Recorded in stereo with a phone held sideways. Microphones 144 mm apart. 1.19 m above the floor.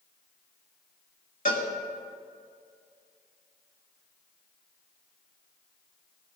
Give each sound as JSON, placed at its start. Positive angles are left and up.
{"t": 1.4, "sound": "a cowbell", "side_deg": 70, "distance_m": 2.0}